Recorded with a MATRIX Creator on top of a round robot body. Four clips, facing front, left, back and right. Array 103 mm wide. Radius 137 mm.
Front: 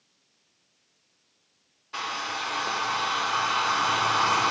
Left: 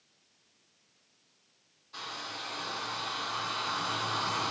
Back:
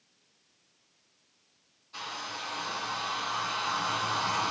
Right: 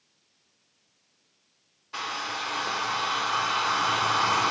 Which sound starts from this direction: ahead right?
A hair dryer, at 1.9 s.